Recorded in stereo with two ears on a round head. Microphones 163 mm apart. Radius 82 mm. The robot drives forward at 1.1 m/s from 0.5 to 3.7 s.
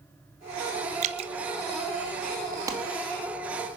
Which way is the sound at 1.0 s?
40° right (ahead or behind).